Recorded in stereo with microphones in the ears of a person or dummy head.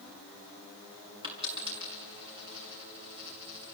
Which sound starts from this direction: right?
A dropped coin, at 1.2 s.